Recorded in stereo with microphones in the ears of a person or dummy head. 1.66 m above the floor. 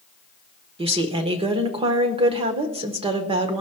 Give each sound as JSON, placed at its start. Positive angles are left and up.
{"t": 0.8, "sound": "a woman speaking", "side_deg": -35, "distance_m": 1.1}